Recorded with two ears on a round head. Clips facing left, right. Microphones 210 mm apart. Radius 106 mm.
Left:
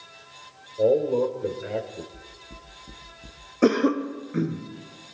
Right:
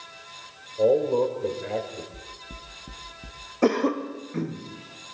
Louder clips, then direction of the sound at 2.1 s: Right 1 dB; 30° right (ahead or behind).